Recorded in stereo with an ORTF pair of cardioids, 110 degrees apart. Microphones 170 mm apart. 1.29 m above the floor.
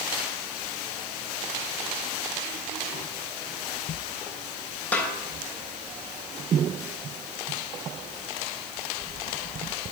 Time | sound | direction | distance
4.9 | a snare drum | 10° left | 3.5 m